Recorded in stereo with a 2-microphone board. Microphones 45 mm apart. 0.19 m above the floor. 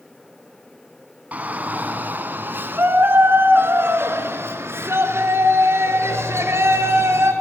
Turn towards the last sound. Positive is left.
turn(degrees=-70)  # may be behind; listen again after turning